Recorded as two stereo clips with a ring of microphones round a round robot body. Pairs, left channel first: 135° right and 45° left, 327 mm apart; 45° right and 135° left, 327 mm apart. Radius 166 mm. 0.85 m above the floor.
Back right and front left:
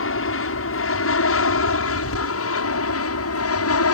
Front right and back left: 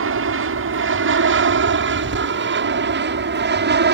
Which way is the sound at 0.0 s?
Straight behind.